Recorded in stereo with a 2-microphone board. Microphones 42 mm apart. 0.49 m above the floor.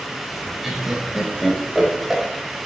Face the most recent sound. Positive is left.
turn(degrees=-5)  # may be behind; listen again after turning